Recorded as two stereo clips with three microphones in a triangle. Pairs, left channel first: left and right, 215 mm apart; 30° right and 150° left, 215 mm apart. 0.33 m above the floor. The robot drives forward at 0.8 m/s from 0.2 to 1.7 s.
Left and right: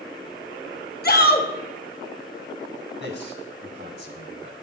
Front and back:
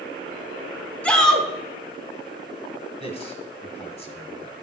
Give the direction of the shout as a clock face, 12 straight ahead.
10 o'clock.